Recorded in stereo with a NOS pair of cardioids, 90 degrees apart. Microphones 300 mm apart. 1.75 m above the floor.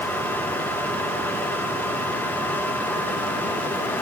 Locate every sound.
0.0 s a fan: 5° left, 6.5 m